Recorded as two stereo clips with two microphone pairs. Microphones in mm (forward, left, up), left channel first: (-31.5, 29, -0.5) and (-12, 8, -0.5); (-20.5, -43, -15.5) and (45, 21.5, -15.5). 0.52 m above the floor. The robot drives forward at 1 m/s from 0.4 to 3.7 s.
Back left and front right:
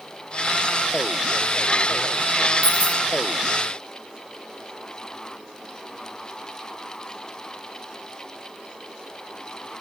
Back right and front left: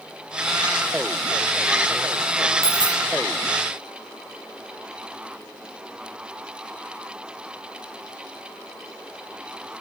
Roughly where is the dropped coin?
Ahead.